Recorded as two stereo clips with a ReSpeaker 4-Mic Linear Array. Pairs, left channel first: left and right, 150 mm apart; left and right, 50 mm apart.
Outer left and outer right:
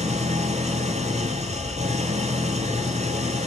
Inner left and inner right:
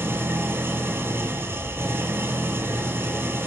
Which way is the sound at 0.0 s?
50° right (ahead or behind).